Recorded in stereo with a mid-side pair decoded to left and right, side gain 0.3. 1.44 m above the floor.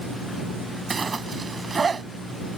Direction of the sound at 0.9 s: 45° right.